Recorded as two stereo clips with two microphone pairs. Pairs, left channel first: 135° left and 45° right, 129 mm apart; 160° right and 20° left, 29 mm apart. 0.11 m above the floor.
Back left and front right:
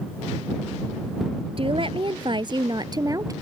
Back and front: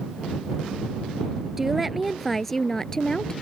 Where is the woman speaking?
55° right; by 3.3 s 100° right.